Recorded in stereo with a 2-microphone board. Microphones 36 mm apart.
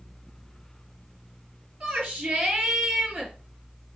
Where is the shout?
50° right (ahead or behind), 3.5 m.